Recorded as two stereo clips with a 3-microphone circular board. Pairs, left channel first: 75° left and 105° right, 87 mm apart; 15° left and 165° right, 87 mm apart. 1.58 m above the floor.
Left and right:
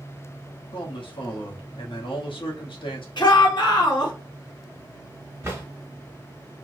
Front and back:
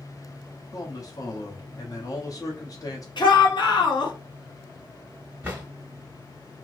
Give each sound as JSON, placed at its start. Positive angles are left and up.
{"t": 0.7, "sound": "a man speaking", "azimuth_deg": 65, "distance_m": 1.0}
{"t": 3.2, "sound": "a shout", "azimuth_deg": 45, "distance_m": 1.2}
{"t": 5.4, "sound": "a drawer", "azimuth_deg": -115, "distance_m": 1.3}